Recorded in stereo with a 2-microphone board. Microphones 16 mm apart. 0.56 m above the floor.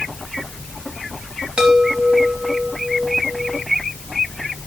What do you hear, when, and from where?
1.6 s a chime: 70° right (ahead or behind), 2 m